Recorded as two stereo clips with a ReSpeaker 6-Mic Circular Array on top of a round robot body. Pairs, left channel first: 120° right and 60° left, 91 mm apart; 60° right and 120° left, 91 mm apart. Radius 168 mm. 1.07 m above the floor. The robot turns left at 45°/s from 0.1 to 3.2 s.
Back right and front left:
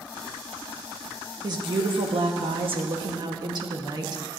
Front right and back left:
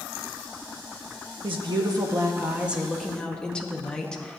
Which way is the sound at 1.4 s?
100° left.